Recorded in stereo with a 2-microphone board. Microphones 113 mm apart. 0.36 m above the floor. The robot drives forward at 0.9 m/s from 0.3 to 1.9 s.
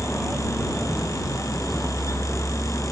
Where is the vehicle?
5° right (ahead or behind); by 2.9 s centre (ahead or behind).